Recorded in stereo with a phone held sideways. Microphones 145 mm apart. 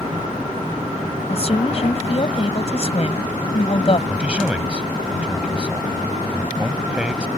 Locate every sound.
1.3 s a woman speaking: 45° left (ahead or behind)
4.1 s a man speaking: 10° right (ahead or behind)